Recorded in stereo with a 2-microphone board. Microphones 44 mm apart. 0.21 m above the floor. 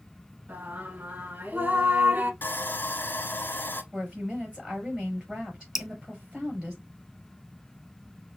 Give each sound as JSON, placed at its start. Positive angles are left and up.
{"t": 0.5, "sound": "singing", "side_deg": -40, "distance_m": 0.8}
{"t": 2.4, "sound": "sawing", "side_deg": 45, "distance_m": 1.0}
{"t": 3.9, "sound": "a woman speaking", "side_deg": -15, "distance_m": 4.5}
{"t": 5.8, "sound": "dripping", "side_deg": -5, "distance_m": 0.6}